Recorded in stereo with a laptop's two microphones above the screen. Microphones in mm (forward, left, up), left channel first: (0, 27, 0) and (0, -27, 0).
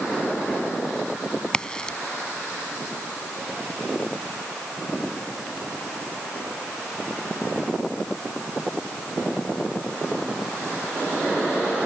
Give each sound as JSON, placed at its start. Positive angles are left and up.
{"t": 1.5, "sound": "a crack", "side_deg": 15}